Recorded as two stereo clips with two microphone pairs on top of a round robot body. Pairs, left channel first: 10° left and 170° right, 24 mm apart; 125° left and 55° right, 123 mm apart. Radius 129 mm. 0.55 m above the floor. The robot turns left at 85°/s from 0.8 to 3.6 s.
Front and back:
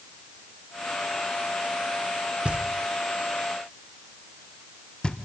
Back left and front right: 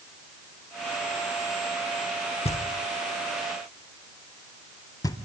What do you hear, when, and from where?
2.5 s knocking: 160° left, 1.4 m; by 5.2 s 65° left, 1.4 m